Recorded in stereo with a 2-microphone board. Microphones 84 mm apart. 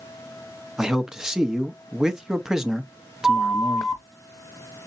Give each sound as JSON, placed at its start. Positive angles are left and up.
{"t": 0.8, "sound": "a man speaking", "side_deg": -5, "distance_m": 0.8}
{"t": 3.2, "sound": "a flute", "side_deg": -5, "distance_m": 3.5}